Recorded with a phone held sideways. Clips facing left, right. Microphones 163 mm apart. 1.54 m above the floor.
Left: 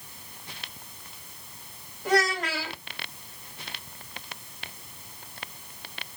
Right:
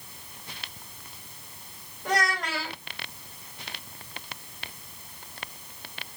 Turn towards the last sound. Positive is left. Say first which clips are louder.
# left 3 dB
turn(degrees=5)  # may be behind; listen again after turning